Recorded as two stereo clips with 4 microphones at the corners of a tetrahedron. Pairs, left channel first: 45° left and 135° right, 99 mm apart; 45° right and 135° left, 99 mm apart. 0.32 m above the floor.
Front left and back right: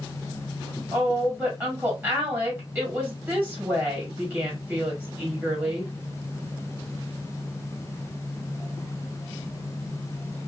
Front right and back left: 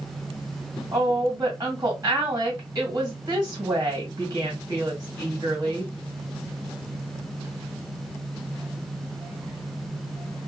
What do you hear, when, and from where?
0.9 s a woman speaking: 165° left, 1.9 m